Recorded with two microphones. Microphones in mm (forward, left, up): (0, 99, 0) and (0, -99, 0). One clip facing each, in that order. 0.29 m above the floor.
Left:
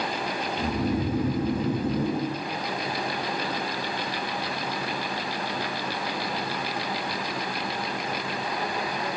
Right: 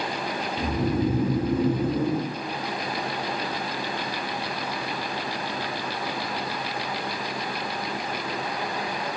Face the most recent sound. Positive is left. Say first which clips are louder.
# right 2 dB
turn(degrees=-30)  # may be behind; listen again after turning